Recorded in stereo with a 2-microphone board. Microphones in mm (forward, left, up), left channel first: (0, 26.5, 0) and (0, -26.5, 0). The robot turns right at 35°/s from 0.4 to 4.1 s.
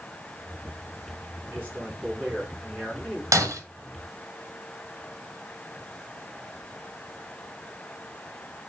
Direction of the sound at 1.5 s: 45° right.